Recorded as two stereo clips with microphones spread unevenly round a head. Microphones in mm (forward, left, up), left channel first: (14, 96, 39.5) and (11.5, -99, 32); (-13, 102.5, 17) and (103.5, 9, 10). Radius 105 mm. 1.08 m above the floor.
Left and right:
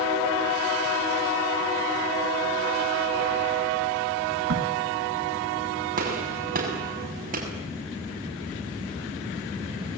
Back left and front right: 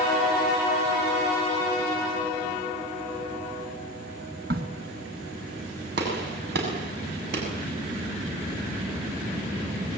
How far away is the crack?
About 1.6 m.